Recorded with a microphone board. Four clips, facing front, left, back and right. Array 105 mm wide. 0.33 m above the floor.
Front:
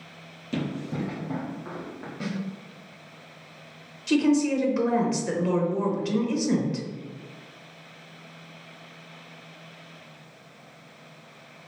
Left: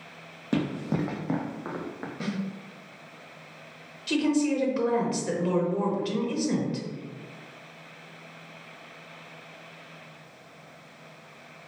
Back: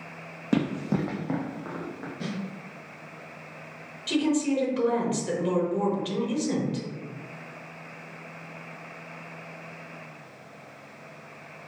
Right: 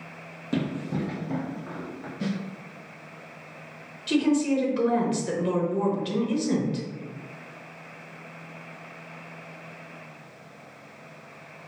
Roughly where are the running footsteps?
Behind.